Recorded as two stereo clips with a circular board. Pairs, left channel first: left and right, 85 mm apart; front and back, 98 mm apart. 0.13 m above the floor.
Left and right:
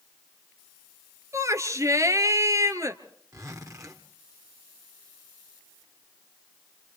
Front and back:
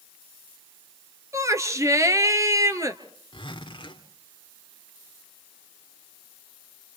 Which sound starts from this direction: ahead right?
A zipper, at 3.3 s.